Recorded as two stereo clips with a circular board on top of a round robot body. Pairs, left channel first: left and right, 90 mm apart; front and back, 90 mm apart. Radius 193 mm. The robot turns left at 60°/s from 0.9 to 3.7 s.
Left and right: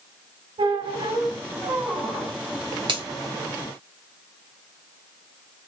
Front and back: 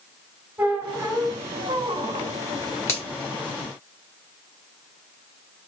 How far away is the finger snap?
About 3.5 m.